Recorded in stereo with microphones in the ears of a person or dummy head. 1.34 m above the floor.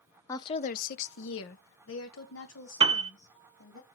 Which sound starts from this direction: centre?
A woman speaking, at 0.3 s.